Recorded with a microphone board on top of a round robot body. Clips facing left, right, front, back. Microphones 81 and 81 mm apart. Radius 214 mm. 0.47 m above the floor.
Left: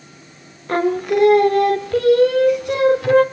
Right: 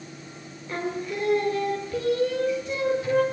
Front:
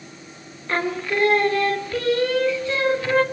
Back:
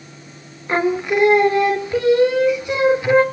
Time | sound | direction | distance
0.7 | singing | 110° left | 1.8 m